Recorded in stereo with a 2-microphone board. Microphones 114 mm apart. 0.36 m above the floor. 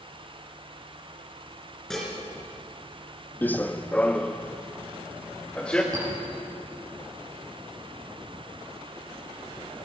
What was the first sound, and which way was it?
Dishes clattering, 5° left (ahead or behind).